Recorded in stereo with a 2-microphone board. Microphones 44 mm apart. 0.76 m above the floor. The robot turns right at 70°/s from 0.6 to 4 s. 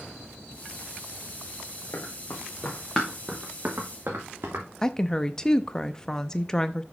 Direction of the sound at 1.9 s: 75° left (ahead or behind).